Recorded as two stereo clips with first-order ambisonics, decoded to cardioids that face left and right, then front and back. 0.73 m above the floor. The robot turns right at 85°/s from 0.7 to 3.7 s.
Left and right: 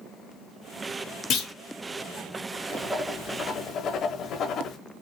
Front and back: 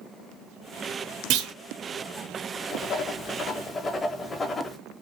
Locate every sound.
1.3 s a clunk: 140° left, 0.6 m; by 1.5 s 160° left, 0.6 m
2.7 s writing: 25° right, 0.5 m; by 4.8 s 60° left, 0.5 m